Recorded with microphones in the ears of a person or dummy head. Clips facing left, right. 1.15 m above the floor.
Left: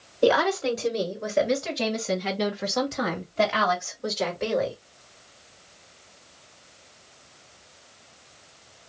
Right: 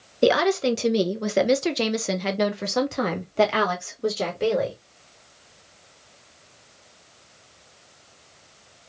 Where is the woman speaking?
30° right (ahead or behind), 1.2 m; by 4.8 s 40° right (ahead or behind), 1.8 m.